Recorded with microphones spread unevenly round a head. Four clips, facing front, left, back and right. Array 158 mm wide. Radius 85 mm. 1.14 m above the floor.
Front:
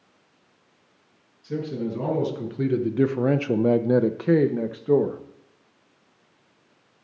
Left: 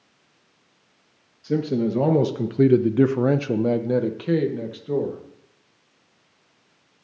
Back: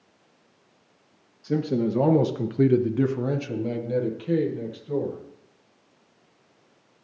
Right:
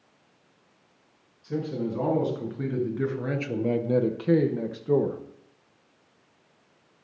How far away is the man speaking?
About 1.3 m.